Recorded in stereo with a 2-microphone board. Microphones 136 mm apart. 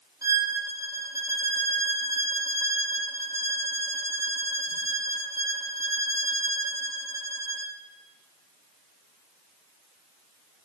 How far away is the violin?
About 0.8 m.